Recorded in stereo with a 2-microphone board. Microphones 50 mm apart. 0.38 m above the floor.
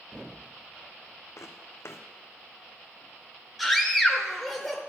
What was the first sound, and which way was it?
Footsteps, 65° left (ahead or behind).